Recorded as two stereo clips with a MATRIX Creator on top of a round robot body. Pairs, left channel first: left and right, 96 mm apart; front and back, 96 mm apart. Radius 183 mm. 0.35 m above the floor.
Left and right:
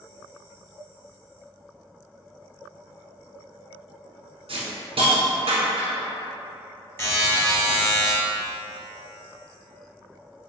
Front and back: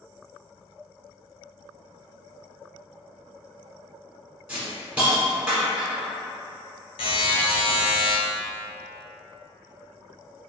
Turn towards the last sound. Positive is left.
turn(degrees=25)